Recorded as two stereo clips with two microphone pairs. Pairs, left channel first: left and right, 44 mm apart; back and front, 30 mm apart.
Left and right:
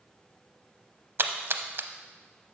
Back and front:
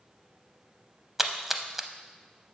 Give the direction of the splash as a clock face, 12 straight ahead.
3 o'clock.